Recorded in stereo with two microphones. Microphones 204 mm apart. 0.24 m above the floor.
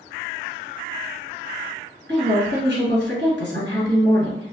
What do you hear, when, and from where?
2.1 s a woman speaking: 60° right (ahead or behind), 2.5 m